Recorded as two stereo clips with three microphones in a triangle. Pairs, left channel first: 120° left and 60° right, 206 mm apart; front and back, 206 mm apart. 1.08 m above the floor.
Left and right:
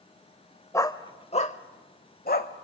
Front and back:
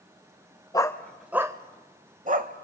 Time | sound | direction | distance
0.7 | a dog barking | 55° left | 0.9 m